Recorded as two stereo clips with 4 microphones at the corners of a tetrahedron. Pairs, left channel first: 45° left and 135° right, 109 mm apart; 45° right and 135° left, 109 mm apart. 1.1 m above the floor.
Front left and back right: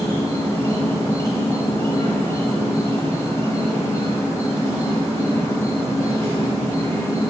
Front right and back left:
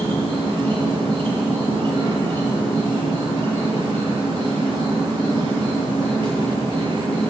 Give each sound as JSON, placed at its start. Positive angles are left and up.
{"t": 0.0, "sound": "an insect", "azimuth_deg": 105, "distance_m": 1.7}